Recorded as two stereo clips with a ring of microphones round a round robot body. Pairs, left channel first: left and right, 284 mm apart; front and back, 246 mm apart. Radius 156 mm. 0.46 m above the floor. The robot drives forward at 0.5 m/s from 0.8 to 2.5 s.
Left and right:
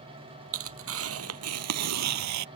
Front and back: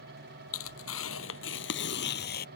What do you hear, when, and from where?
0.5 s tearing paper: 45° right; by 2.5 s 60° right